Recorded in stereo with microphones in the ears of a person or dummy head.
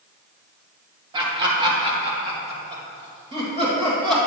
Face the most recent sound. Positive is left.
turn(degrees=-30)  # may be behind; listen again after turning